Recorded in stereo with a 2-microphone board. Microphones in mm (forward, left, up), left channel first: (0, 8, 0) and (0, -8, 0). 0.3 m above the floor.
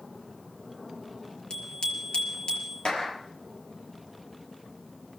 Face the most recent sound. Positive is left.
turn(degrees=75)  # may be behind; listen again after turning